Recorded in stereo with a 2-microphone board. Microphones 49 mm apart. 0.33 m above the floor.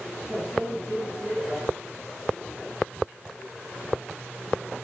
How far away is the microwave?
About 2 m.